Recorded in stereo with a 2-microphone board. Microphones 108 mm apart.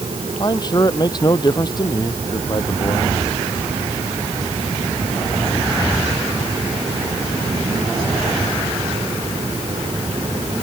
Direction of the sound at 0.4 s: 40° left (ahead or behind).